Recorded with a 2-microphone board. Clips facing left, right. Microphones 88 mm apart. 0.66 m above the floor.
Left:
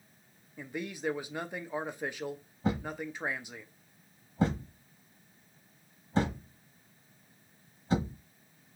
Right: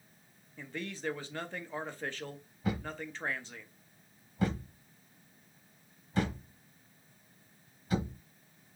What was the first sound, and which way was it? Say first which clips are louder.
A man speaking: left 3 dB; 10° left (ahead or behind).